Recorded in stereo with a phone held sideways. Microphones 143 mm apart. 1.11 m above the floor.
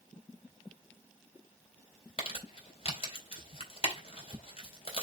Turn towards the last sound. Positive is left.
turn(degrees=40)  # may be behind; listen again after turning